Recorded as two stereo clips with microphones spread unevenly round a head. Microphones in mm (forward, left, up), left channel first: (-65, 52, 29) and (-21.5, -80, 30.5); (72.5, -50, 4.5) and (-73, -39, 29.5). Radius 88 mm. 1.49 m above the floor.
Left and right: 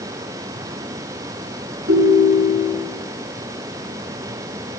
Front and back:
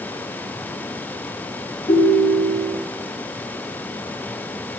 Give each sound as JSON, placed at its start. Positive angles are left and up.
{"t": 1.9, "sound": "a ringtone", "azimuth_deg": -70, "distance_m": 2.0}